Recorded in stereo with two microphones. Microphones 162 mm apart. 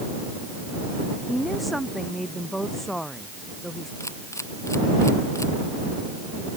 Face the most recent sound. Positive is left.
turn(degrees=15)  # may be behind; listen again after turning